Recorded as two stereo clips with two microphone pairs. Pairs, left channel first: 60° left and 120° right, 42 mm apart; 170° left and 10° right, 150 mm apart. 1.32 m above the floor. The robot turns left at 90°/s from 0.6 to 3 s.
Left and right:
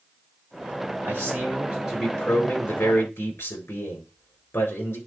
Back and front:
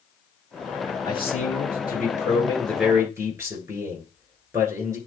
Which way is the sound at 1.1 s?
125° right.